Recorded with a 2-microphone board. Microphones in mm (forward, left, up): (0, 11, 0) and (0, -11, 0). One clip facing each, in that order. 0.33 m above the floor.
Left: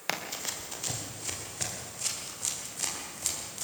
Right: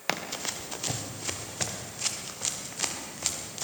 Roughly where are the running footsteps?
Centre.